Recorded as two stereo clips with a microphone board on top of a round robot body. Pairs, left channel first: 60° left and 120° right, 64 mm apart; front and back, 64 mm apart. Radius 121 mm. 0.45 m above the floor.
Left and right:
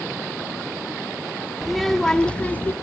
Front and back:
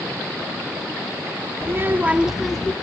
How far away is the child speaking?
About 0.9 m.